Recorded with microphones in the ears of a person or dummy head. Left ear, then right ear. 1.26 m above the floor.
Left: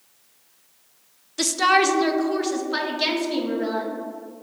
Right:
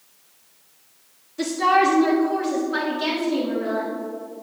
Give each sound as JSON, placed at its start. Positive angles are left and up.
{"t": 1.4, "sound": "a woman speaking", "side_deg": 35, "distance_m": 0.6}